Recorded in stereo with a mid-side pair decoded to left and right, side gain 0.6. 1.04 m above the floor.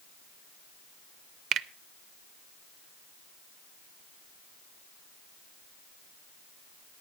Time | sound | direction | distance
1.5 | a finger snap | 60° right | 0.6 m